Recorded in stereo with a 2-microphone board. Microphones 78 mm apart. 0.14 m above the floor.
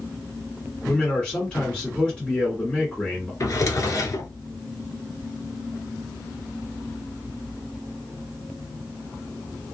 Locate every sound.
0.8 s a man speaking: 10° left (ahead or behind), 1.9 m
3.4 s a drawer: 40° left (ahead or behind), 0.7 m